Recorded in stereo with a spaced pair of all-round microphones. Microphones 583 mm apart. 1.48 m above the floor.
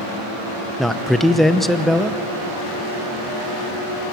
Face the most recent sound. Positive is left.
turn(degrees=0)  # may be behind; listen again after turning